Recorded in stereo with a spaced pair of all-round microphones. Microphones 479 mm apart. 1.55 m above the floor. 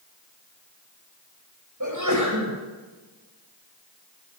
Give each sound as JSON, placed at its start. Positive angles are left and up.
{"t": 1.8, "sound": "a sneeze", "side_deg": -40, "distance_m": 9.5}